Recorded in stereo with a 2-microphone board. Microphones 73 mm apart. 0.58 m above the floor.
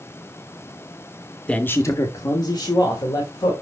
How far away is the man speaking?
About 0.7 m.